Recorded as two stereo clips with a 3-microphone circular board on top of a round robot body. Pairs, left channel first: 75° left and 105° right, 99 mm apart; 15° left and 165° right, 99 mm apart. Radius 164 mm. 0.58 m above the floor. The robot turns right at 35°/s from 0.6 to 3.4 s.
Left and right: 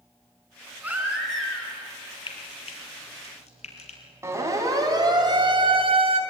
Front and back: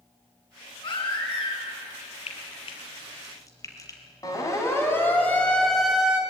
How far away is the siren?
About 4.5 m.